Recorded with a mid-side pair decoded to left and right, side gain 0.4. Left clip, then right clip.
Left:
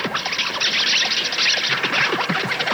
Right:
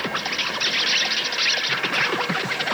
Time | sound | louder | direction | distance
0.0 | an insect | left 2 dB | 25° left | ?